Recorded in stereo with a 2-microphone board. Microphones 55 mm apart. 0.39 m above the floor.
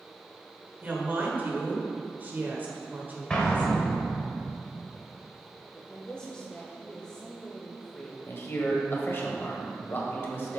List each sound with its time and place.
0.8 s a woman speaking: 35° right (ahead or behind), 1.5 m
3.3 s an explosion: 15° left (ahead or behind), 1.6 m
5.8 s a woman speaking: 15° left (ahead or behind), 1.0 m
8.3 s a man speaking: 40° left (ahead or behind), 1.4 m